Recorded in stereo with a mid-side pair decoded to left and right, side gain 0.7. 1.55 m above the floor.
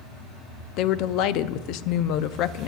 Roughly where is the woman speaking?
Ahead left.